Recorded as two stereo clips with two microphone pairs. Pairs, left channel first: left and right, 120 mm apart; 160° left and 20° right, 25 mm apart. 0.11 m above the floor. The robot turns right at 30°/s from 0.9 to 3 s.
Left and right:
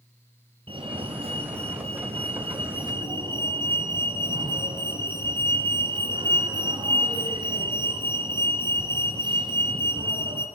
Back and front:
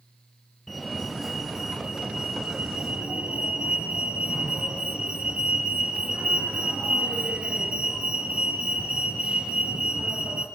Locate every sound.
0.7 s a fire alarm: 115° right, 3.5 m; by 10.5 s 50° right, 3.5 m